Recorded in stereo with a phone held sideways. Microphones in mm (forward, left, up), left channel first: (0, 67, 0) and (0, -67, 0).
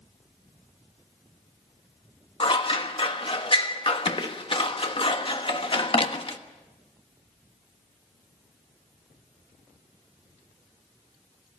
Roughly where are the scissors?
Left.